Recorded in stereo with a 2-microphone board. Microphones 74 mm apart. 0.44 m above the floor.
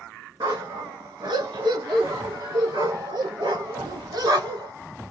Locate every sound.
0.4 s a dog barking: 60° right (ahead or behind), 1.4 m; by 4.7 s 70° right (ahead or behind), 3 m